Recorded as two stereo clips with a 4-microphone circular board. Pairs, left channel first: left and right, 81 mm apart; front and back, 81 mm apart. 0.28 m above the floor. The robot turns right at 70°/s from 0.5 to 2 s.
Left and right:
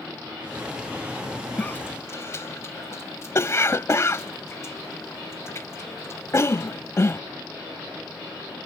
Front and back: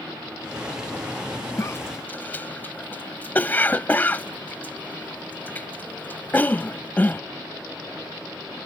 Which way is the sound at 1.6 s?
25° left.